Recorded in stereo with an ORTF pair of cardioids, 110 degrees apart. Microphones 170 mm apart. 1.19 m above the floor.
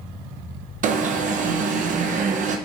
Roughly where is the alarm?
Ahead right.